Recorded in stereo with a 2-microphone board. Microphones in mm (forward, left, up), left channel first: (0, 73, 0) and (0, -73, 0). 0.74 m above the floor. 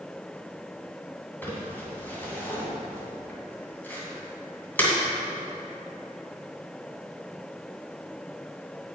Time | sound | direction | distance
1.4 | crumpling | 15° left (ahead or behind) | 2.5 m